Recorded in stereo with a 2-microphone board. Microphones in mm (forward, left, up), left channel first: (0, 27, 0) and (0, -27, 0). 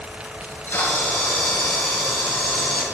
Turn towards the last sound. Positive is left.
turn(degrees=55)  # may be behind; listen again after turning